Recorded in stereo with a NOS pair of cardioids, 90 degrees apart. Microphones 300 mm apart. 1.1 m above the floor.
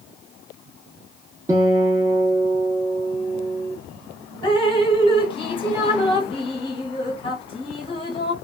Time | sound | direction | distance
1.5 | a guitar | 10° right | 1.1 m
4.4 | dripping | 15° left | 1.0 m